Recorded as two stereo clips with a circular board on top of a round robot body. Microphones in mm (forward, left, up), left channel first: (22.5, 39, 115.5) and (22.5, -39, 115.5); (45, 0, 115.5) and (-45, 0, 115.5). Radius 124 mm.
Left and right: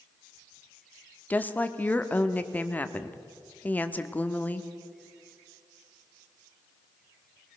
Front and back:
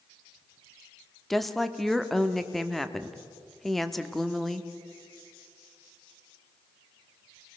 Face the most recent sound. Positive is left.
turn(degrees=85)